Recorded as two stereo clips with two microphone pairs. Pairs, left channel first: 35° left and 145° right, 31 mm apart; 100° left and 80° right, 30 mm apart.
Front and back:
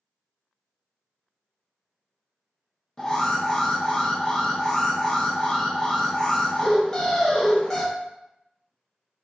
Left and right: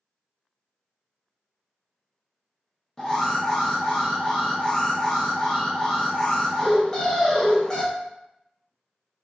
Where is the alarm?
65° left, 0.8 m.